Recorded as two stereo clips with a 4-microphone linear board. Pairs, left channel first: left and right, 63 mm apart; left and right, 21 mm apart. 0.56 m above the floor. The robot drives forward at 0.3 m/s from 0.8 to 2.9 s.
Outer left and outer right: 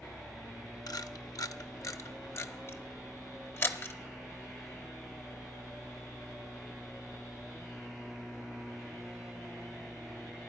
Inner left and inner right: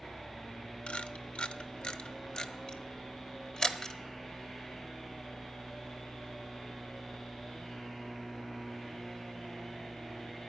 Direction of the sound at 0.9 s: 85° left.